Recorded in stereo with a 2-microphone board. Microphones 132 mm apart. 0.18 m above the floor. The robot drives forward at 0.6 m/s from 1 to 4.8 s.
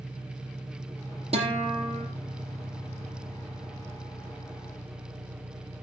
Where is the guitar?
50° right (ahead or behind), 5 m.